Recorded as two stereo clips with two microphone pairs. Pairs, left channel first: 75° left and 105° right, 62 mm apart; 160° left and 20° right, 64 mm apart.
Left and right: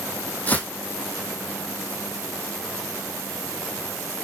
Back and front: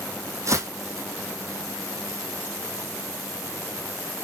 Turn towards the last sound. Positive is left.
turn(degrees=15)